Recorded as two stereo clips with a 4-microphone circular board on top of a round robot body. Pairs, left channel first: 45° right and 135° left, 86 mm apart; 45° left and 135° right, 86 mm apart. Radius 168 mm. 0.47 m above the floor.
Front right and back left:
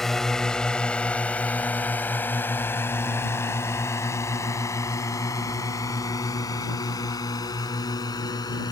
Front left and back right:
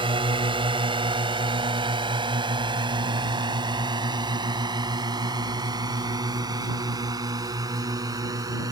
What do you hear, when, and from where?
0.0 s a drone: 130° right; by 8.7 s 85° right